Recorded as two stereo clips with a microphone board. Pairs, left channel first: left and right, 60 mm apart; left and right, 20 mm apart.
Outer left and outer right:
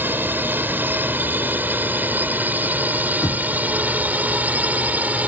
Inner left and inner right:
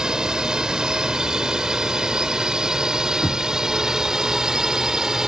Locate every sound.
0.0 s a drone: 35° right (ahead or behind); by 5.3 s 25° right (ahead or behind)
3.2 s knocking: 80° left